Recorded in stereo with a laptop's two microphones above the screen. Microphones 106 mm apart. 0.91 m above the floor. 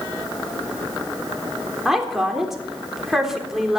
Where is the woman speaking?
5° right (ahead or behind), 3 m.